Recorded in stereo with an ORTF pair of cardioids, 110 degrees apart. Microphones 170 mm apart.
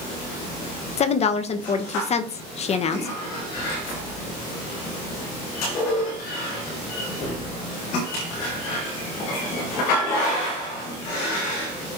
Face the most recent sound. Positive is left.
turn(degrees=40)